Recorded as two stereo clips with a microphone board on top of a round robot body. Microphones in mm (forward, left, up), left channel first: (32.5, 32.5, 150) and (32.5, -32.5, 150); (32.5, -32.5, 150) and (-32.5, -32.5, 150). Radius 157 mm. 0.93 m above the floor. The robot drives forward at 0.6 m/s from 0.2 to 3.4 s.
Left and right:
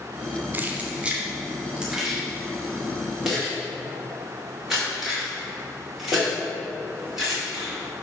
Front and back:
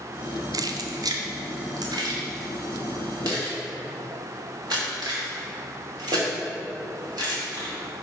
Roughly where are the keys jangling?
Behind right.